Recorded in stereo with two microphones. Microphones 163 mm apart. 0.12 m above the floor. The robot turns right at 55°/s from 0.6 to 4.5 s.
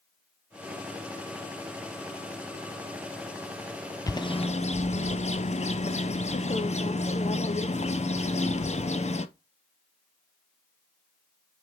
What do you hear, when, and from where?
4.1 s a bird: 20° left (ahead or behind), 0.5 m; by 9.3 s 45° left (ahead or behind), 0.5 m